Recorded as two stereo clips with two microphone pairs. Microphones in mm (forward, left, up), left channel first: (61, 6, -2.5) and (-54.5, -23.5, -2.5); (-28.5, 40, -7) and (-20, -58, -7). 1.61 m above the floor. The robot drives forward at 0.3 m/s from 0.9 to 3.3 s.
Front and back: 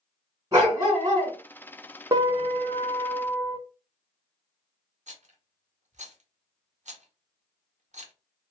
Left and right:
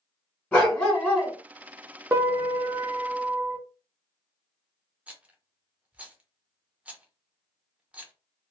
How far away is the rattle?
About 0.6 m.